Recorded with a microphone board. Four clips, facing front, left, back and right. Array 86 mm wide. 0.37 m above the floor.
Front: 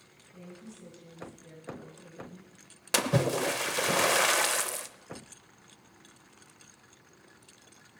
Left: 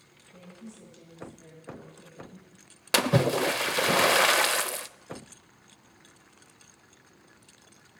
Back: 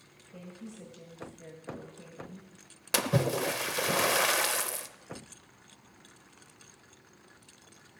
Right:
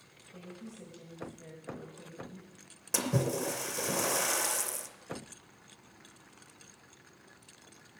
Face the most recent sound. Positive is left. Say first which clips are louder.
# left 8 dB, front 1 dB
turn(degrees=85)